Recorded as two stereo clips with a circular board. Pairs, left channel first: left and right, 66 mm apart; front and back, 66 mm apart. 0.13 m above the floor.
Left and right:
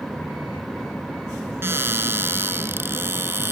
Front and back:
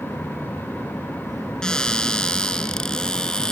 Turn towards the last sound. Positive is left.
turn(degrees=-70)